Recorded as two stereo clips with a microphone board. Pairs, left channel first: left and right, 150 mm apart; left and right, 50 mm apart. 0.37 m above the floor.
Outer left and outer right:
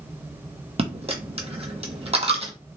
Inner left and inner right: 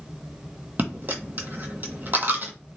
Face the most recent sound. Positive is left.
turn(degrees=-40)  # may be behind; listen again after turning